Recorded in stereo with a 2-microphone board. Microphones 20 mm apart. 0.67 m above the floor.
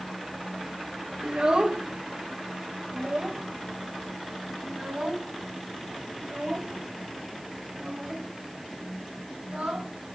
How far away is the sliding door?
I don't hear a sliding door.